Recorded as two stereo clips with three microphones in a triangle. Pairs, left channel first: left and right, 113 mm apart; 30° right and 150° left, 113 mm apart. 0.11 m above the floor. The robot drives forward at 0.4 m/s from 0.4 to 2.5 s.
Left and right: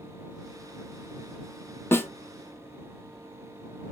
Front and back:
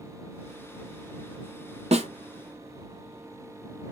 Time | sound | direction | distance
1.9 | a snare drum | 160° left | 0.8 m